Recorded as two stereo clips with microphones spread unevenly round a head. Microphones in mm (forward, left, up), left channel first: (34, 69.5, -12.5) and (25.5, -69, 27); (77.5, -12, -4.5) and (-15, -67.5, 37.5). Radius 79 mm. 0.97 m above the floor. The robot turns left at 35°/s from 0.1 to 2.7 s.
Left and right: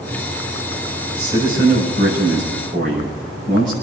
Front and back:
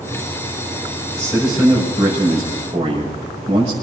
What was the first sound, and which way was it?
A man speaking, 50° right.